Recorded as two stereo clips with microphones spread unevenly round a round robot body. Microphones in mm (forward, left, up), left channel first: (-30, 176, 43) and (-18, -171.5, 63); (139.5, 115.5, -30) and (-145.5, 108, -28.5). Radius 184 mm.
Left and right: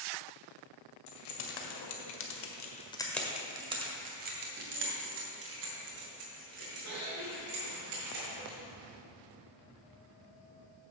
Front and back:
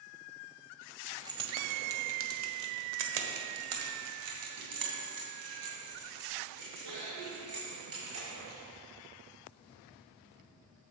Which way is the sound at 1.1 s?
100° left.